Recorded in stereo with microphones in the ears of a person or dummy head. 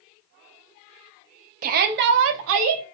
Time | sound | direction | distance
1.6 | a shout | 50° right (ahead or behind) | 0.7 m